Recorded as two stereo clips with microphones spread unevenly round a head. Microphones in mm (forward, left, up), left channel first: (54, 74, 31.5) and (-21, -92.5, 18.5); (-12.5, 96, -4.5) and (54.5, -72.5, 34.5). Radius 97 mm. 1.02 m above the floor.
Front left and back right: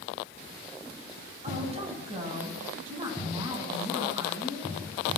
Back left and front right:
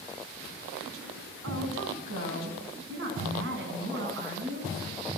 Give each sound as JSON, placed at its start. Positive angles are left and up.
{"t": 1.4, "sound": "a woman speaking", "azimuth_deg": -60, "distance_m": 8.5}